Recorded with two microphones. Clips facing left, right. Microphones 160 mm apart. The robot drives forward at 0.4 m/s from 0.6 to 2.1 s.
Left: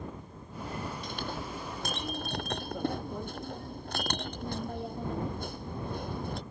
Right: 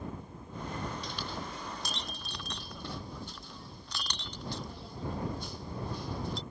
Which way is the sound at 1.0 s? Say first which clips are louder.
Left 2 dB; 50° left (ahead or behind).